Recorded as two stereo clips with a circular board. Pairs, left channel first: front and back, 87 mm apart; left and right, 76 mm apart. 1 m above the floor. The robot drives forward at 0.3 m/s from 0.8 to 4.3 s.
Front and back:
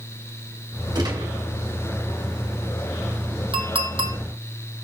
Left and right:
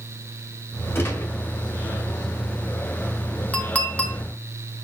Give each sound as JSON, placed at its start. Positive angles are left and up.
{"t": 0.9, "sound": "a gunshot", "azimuth_deg": 145, "distance_m": 1.8}
{"t": 3.5, "sound": "a clink", "azimuth_deg": 160, "distance_m": 1.1}